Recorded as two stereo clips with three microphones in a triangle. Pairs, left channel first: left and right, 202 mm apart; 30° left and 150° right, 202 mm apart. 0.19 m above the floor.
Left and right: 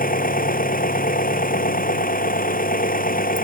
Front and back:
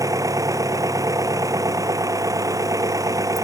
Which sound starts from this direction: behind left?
An engine running, at 0.0 s.